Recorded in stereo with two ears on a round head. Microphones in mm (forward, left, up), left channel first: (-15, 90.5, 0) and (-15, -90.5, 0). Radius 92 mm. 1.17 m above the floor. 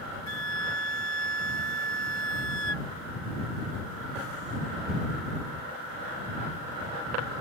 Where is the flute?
75° left (ahead or behind).